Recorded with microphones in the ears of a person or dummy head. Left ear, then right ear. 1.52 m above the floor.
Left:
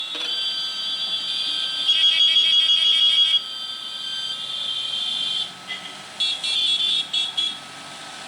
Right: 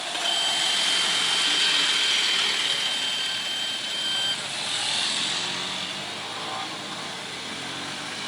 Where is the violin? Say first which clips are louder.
Right 2 dB; 10° right (ahead or behind), 1.3 m.